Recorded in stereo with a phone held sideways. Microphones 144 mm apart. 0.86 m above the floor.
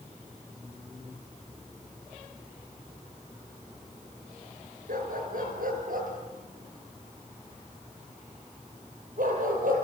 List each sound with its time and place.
4.9 s a dog barking: 80° right, 4.5 m; by 9.8 s 75° right (ahead or behind), 8.5 m